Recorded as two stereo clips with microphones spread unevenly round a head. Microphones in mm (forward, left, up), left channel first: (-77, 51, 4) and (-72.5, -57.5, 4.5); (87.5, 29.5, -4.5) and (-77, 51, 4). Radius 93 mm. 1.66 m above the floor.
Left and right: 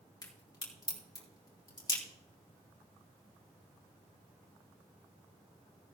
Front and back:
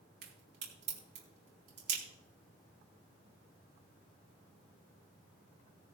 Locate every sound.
0.2 s a crack: 150° left, 4 m